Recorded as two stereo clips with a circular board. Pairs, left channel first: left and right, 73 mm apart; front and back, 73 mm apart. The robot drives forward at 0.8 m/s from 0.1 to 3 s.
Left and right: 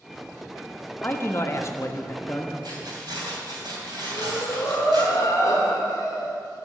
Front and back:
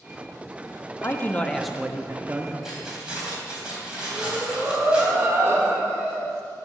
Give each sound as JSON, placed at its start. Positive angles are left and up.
{"t": 1.0, "sound": "a man speaking", "azimuth_deg": 40, "distance_m": 0.9}
{"t": 2.6, "sound": "keys jangling", "azimuth_deg": -100, "distance_m": 3.5}
{"t": 4.1, "sound": "breathing", "azimuth_deg": 125, "distance_m": 2.0}